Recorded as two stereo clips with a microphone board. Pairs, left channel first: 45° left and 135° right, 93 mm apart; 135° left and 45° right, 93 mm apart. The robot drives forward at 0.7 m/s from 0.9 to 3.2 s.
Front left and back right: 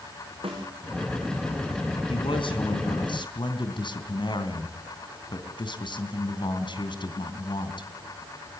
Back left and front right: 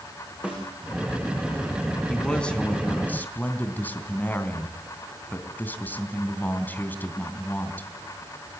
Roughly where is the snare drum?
Behind right.